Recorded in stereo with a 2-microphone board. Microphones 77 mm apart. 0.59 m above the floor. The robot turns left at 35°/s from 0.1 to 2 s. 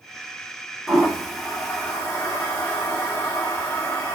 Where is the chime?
No chime in this recording.